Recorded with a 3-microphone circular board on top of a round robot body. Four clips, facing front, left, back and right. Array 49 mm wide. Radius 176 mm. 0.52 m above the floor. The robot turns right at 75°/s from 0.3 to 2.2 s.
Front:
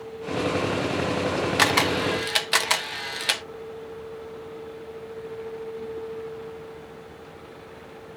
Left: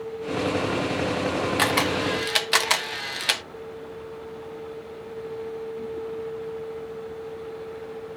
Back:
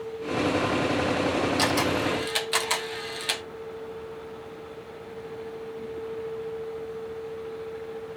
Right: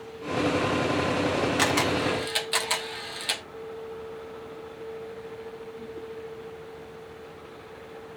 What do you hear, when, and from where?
1.6 s a camera shutter: 10° left, 0.8 m; by 3.4 s 60° left, 0.8 m